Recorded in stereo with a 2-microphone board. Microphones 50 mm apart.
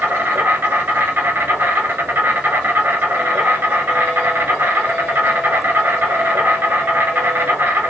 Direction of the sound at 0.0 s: 45° right (ahead or behind).